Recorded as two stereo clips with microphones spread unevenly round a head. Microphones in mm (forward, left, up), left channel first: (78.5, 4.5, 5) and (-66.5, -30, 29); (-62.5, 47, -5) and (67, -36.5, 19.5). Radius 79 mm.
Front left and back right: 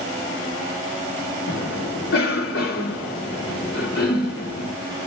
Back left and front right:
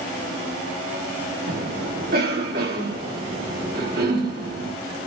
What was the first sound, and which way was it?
A cough, straight ahead.